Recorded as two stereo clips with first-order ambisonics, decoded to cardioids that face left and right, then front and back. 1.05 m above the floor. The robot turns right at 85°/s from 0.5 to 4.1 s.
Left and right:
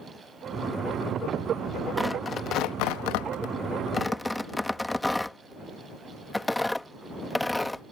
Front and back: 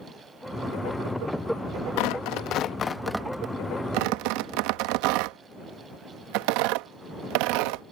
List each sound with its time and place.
2.0 s tearing paper: 5° right; by 7.8 s 175° left